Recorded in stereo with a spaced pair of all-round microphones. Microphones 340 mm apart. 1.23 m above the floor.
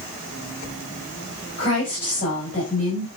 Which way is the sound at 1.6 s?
40° left (ahead or behind).